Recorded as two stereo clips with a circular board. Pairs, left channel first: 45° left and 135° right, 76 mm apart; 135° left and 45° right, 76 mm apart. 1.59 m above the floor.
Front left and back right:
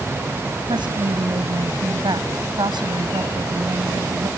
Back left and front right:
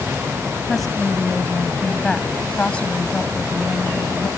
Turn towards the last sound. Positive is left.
turn(degrees=-160)